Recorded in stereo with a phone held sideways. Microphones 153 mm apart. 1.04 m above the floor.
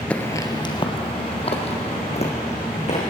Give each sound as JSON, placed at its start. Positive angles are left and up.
{"t": 0.1, "sound": "footsteps", "side_deg": 10, "distance_m": 1.0}